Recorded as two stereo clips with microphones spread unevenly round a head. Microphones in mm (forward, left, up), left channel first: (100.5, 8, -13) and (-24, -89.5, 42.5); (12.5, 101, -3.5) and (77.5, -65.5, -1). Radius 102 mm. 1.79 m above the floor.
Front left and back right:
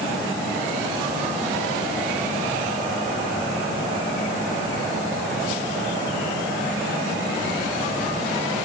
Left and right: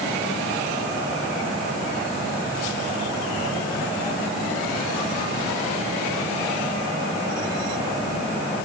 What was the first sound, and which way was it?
Only background noise.